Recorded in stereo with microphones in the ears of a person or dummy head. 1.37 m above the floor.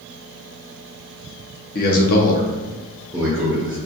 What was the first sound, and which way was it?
A man speaking, 45° left (ahead or behind).